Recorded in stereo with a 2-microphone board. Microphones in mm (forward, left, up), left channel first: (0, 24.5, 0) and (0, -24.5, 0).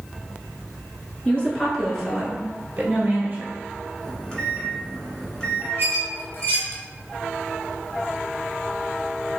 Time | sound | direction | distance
1.2 | a woman speaking | 25° left (ahead or behind) | 1.6 m
4.0 | a microwave | 20° left (ahead or behind) | 1.2 m
5.8 | a squeak | 40° left (ahead or behind) | 1.4 m